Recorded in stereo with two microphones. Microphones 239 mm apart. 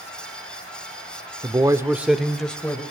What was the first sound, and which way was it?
A man speaking, 20° right (ahead or behind).